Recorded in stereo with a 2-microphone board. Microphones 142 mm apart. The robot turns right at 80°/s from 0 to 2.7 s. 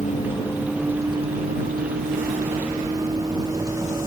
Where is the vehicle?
120° left; by 4.1 s 25° right.